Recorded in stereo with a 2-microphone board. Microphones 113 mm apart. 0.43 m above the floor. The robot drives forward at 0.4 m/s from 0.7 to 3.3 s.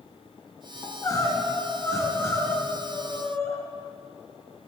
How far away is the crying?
About 2 m.